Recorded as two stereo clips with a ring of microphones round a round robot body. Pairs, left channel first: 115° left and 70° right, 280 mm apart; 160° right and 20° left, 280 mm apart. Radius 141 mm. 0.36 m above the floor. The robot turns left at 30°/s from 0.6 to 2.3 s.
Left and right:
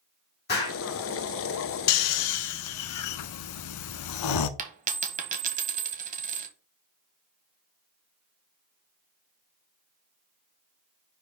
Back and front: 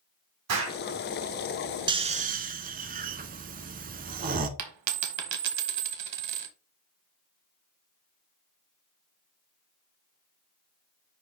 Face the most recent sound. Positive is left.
turn(degrees=-5)